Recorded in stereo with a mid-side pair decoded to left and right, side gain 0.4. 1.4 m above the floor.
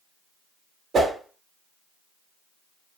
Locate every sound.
0.9 s a whoosh: 60° right, 1.3 m